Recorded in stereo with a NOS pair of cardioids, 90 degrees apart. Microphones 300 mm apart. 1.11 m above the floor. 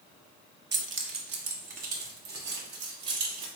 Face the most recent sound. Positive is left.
turn(degrees=-65)